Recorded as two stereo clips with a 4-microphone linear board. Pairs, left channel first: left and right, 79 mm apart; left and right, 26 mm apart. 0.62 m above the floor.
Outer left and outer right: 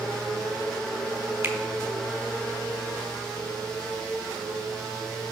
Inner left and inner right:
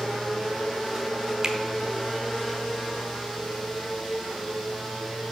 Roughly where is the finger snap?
Right.